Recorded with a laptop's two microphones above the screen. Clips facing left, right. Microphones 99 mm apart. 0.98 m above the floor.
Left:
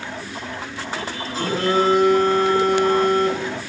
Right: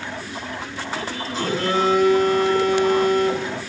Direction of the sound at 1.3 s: 40° left (ahead or behind).